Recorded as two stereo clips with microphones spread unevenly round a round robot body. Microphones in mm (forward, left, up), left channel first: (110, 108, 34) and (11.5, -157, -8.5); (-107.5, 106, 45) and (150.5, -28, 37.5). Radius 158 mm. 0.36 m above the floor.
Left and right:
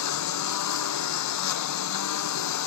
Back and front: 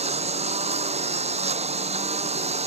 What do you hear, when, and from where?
0.0 s a lawn mower: 45° left